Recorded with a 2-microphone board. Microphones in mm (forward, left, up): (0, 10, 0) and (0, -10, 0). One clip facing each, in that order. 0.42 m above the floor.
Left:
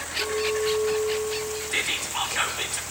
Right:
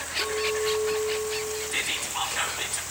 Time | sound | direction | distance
0.2 | a clink | centre (ahead or behind) | 3 m
1.7 | whispering | 20° left (ahead or behind) | 1.1 m